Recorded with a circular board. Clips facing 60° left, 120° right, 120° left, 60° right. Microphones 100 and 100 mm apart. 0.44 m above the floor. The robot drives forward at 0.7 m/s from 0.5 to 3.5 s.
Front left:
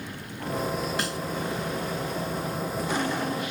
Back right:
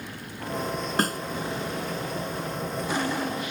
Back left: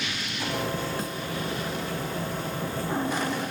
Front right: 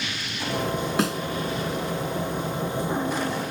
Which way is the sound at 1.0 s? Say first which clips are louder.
Back right 4 dB, front right 8 dB; 75° right.